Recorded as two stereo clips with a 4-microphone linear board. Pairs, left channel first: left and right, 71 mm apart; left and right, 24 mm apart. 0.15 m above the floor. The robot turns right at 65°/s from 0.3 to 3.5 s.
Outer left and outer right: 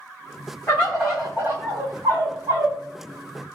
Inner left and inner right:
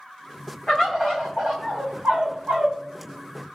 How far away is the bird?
About 2 m.